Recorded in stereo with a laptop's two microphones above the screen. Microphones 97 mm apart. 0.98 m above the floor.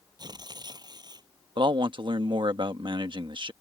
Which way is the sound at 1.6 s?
55° right (ahead or behind).